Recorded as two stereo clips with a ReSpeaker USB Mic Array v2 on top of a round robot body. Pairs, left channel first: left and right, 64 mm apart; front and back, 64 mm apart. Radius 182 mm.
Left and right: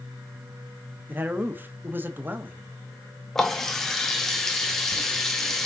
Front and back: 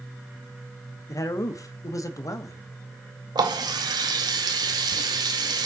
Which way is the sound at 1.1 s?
30° right.